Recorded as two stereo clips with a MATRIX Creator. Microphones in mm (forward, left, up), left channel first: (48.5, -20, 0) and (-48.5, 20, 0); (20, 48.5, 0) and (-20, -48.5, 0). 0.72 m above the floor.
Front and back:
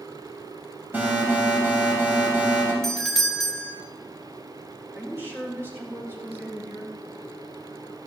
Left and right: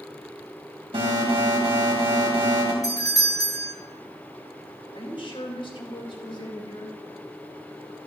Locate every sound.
0.9 s an alarm: 130° right, 4.5 m
2.8 s a doorbell: 60° left, 1.3 m
4.9 s a woman speaking: 95° left, 4 m